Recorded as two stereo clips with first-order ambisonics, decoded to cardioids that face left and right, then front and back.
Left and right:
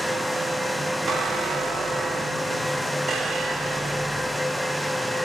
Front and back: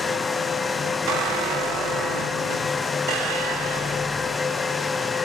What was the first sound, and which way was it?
A squeak, 160° right.